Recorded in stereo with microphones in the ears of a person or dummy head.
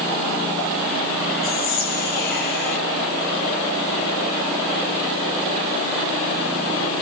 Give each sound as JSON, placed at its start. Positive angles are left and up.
{"t": 1.4, "sound": "whispering", "side_deg": 60, "distance_m": 1.3}